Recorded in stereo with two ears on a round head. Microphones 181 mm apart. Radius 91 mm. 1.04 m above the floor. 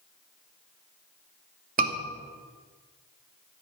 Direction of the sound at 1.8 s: 40° right (ahead or behind).